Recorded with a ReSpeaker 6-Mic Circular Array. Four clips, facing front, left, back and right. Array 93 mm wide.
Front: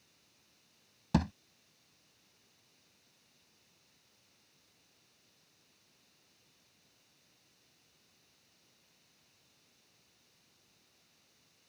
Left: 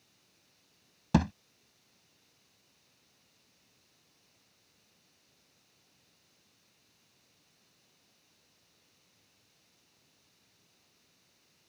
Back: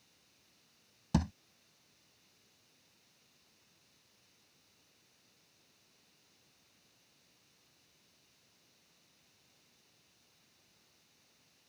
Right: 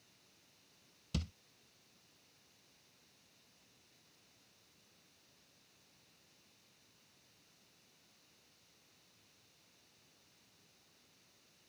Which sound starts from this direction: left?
A thud, at 1.1 s.